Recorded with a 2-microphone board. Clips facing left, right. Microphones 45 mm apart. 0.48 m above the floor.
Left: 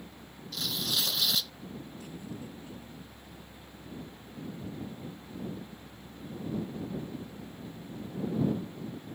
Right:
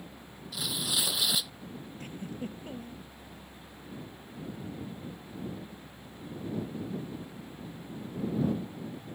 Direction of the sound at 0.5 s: 10° right (ahead or behind).